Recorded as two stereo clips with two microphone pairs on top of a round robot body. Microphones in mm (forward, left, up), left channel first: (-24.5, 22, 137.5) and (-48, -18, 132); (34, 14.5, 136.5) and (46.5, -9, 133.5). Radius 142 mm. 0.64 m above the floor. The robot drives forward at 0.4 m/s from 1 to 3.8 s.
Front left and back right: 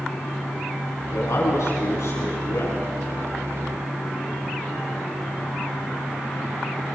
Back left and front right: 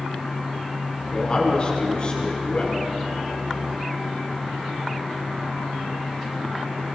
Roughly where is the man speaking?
Ahead left.